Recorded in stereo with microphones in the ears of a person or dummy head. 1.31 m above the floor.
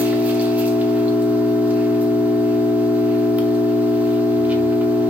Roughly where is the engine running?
Centre.